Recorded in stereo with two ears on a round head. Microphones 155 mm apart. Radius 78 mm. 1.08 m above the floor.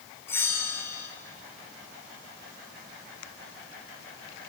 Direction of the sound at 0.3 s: 15° left (ahead or behind).